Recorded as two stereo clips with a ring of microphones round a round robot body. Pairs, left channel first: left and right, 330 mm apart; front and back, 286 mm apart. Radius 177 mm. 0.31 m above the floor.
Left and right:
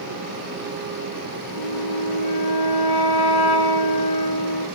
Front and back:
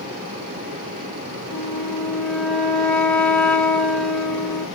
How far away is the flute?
About 2.5 m.